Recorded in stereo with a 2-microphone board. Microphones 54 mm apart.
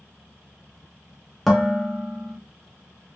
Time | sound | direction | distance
1.5 | dishes clattering | 5° left (ahead or behind) | 0.9 m